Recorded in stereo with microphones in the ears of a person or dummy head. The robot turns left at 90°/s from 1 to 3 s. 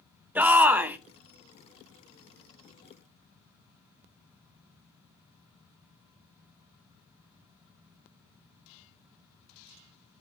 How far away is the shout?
About 0.7 m.